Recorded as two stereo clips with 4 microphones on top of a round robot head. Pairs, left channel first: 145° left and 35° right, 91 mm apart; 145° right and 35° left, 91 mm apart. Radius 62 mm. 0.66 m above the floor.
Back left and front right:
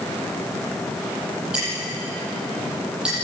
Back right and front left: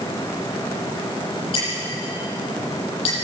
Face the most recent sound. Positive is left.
turn(degrees=-115)